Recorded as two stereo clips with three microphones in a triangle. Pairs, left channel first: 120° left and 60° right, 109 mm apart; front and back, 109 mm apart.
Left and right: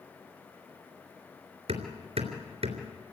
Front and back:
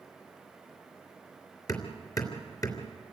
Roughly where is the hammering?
Ahead right.